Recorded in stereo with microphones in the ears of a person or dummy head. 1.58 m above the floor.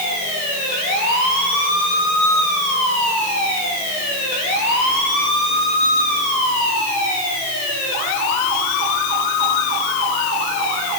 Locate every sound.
Only background noise.